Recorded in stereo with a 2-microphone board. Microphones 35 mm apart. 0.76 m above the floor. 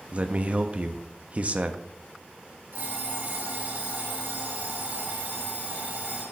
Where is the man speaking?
35° right (ahead or behind), 0.8 m.